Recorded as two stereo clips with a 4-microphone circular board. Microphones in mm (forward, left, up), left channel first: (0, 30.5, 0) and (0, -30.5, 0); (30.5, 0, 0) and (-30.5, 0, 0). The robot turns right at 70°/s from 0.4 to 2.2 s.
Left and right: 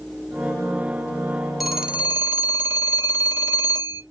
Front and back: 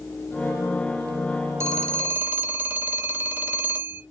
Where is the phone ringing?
175° right, 0.8 m; by 4.0 s 135° right, 0.8 m.